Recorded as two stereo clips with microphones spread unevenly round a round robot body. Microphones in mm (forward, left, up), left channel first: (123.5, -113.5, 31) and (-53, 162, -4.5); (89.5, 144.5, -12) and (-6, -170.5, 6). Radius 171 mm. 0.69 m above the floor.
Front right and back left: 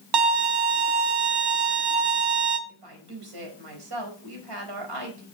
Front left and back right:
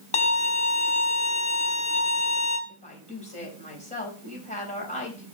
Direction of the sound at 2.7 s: 145° left.